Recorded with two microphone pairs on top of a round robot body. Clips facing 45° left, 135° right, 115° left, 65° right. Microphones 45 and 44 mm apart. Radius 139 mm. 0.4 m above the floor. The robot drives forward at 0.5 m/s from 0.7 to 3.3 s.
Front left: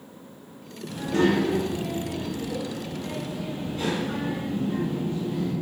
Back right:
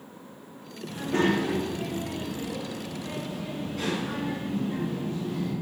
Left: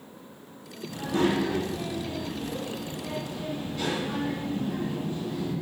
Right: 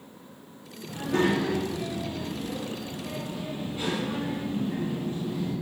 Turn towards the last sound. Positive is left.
turn(degrees=-140)